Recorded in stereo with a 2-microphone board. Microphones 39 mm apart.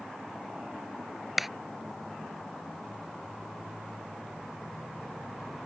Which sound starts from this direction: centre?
A clap, at 1.4 s.